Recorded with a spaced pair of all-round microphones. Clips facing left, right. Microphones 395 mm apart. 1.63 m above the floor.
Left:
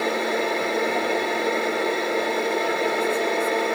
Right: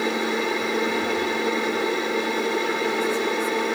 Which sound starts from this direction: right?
A machine running, at 0.0 s.